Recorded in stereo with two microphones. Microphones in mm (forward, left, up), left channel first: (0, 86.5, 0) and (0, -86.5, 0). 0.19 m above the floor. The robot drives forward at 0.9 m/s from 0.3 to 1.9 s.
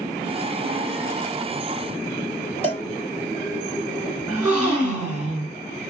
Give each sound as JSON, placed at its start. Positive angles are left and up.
{"t": 2.6, "sound": "a cowbell", "side_deg": -35, "distance_m": 0.9}
{"t": 4.3, "sound": "a gasp", "side_deg": -5, "distance_m": 3.0}